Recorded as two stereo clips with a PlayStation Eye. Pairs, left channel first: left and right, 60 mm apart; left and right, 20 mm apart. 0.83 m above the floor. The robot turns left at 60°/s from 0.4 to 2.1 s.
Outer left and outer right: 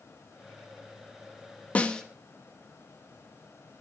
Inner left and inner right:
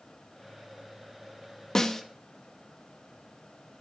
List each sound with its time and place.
1.8 s a snare drum: 25° left (ahead or behind), 1.3 m; by 2.0 s 10° left (ahead or behind), 1.3 m